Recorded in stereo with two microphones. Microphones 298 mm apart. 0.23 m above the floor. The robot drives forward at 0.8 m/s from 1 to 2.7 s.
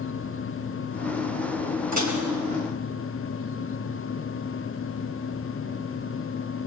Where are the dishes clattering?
70° right (ahead or behind), 3 m; by 2.2 s 65° right (ahead or behind), 3 m.